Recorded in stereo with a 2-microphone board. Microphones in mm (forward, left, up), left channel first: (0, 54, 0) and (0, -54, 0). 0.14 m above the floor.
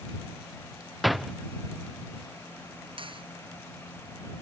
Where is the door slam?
Centre (ahead or behind).